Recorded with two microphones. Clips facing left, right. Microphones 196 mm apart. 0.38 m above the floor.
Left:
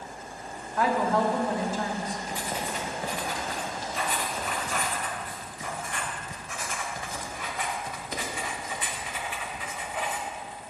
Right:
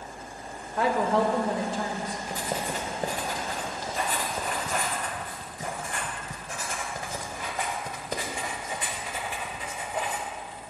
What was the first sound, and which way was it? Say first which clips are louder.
A woman speaking: right 1 dB; 30° right (ahead or behind).